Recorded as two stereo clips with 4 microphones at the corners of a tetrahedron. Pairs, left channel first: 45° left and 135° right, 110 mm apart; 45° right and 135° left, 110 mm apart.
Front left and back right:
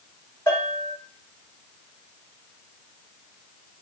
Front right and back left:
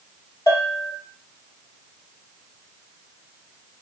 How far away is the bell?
About 1.7 m.